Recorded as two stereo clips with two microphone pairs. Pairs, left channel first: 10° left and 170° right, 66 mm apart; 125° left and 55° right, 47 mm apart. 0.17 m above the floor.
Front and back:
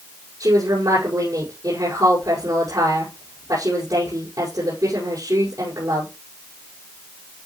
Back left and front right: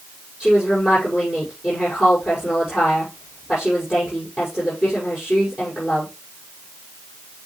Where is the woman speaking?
135° right, 7 m.